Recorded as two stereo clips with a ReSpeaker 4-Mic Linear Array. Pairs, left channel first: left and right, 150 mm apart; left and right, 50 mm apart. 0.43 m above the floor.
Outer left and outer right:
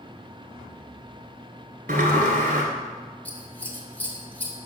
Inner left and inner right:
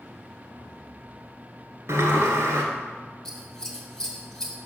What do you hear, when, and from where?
1.9 s a sliding door: 80° right, 1.4 m
3.2 s scissors: 10° left (ahead or behind), 1.1 m